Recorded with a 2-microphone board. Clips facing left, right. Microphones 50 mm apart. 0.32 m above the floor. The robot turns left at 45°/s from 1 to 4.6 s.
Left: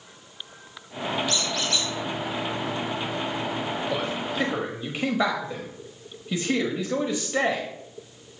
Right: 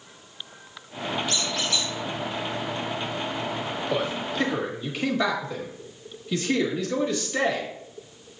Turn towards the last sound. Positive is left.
turn(degrees=15)  # may be behind; listen again after turning